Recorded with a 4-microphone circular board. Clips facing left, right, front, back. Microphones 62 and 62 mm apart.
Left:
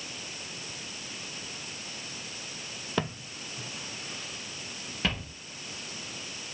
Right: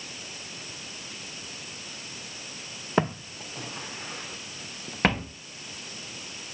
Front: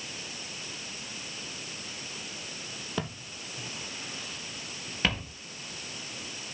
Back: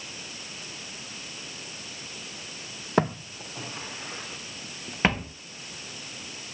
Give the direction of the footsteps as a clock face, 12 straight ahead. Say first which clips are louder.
Right 7 dB, back 12 dB; 5 o'clock.